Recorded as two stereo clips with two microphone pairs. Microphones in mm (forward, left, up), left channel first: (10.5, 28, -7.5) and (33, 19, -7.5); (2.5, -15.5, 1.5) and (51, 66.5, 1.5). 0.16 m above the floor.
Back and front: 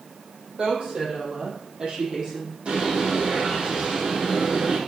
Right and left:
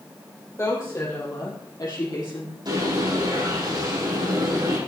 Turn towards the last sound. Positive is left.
turn(degrees=20)